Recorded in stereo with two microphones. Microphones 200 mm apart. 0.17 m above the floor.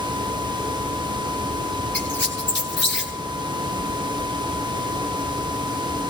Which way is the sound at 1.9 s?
60° left (ahead or behind).